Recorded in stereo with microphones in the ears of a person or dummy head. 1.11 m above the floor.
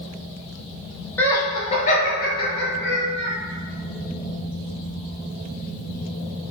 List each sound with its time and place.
1.2 s laughter: 10° left (ahead or behind), 0.7 m; by 3.3 s 70° left (ahead or behind), 1.2 m